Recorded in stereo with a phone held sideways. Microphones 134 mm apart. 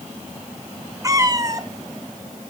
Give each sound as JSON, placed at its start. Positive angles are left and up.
{"t": 1.0, "sound": "a cat meowing", "side_deg": -25, "distance_m": 1.0}